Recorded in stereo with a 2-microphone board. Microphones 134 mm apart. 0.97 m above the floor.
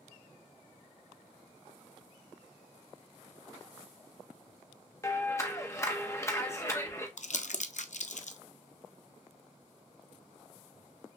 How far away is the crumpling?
About 0.5 m.